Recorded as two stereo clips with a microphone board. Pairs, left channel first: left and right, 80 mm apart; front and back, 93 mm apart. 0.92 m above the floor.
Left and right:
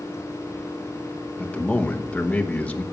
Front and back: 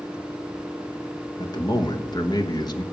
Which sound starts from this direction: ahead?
A man speaking, at 1.4 s.